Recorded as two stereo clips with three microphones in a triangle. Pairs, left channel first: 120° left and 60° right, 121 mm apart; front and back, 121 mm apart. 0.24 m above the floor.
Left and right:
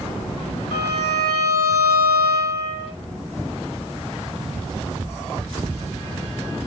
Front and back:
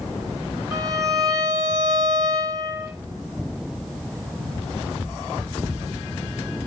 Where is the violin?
125° left, 0.7 m.